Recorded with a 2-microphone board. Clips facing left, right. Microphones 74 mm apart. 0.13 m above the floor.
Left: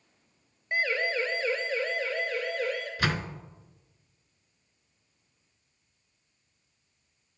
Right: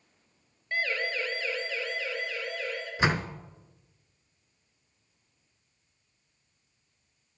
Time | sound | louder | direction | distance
0.7 | a siren | left 3 dB | 20° left (ahead or behind) | 2.5 m
3.0 | a door slam | right 5 dB | 20° right (ahead or behind) | 0.9 m